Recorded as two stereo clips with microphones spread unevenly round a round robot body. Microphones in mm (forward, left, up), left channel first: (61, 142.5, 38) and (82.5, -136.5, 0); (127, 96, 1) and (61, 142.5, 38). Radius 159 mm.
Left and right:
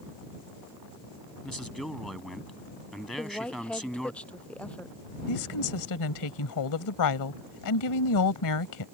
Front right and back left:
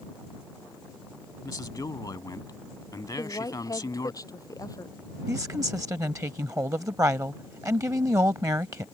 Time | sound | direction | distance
1.4 | a man speaking | 5° left | ?
3.2 | a woman speaking | 10° left | ?
5.3 | a woman speaking | 90° left | ?